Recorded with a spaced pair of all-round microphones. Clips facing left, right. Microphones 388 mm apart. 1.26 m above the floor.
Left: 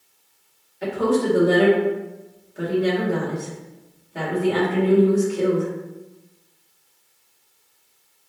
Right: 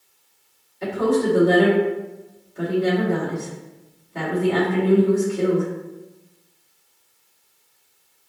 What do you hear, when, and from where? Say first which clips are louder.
0.8 s a woman speaking: even; 5° right (ahead or behind), 2.0 m